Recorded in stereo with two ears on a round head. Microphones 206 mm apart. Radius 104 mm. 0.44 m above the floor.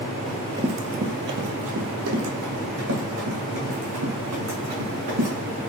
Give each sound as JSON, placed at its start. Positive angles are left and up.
{"t": 0.3, "sound": "running footsteps", "side_deg": 0, "distance_m": 0.6}